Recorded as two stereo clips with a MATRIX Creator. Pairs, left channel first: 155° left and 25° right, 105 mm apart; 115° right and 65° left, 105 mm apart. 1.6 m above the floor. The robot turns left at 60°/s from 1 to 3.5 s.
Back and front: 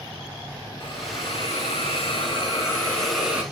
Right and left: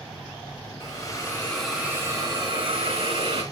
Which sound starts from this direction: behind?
A hiss, at 0.8 s.